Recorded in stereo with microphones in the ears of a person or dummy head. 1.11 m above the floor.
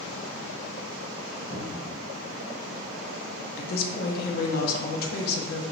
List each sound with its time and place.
1.5 s a cupboard door: 35° left (ahead or behind), 1.0 m
3.6 s a woman speaking: 50° left (ahead or behind), 0.6 m